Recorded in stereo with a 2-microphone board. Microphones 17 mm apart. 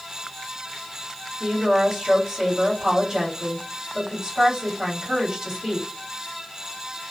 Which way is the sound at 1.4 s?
30° right (ahead or behind).